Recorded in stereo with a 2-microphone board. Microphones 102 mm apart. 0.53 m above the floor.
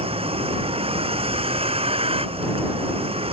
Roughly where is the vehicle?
Right.